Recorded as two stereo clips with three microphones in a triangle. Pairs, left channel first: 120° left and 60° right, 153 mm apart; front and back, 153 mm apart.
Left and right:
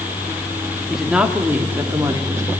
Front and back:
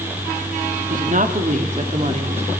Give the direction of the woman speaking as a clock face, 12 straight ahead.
5 o'clock.